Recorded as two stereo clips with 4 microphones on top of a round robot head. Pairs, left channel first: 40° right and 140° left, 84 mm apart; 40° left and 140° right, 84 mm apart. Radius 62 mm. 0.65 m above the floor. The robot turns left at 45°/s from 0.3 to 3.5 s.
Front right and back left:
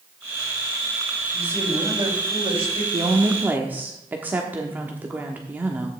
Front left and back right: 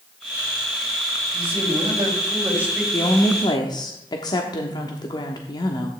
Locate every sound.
1.3 s a man speaking: 150° right, 4 m; by 2.8 s 140° left, 4 m
2.9 s a woman speaking: 95° left, 1.2 m; by 5.9 s 70° left, 1.2 m